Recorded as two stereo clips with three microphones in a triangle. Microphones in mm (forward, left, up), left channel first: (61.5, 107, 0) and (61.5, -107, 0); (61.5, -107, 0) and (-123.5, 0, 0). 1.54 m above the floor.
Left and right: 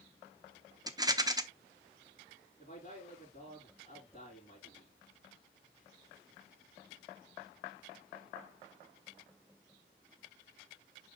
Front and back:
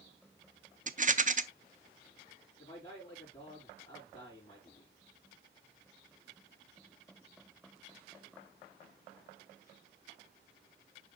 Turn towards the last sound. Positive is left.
turn(degrees=35)